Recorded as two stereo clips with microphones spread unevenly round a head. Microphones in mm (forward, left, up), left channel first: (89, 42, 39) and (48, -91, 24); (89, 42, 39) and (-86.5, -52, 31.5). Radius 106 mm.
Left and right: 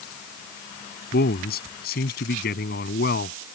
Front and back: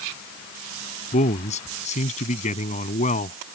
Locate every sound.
1.1 s a man speaking: 85° left